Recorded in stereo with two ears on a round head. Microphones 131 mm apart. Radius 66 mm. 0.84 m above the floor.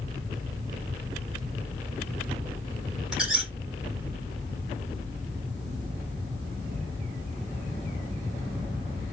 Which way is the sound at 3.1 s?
5° right (ahead or behind).